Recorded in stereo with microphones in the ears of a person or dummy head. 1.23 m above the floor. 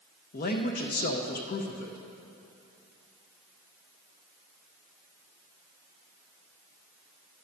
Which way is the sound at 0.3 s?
45° left (ahead or behind).